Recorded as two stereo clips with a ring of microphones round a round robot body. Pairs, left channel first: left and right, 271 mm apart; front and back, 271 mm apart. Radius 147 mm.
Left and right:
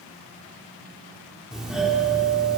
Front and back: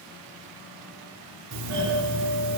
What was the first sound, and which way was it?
A doorbell, straight behind.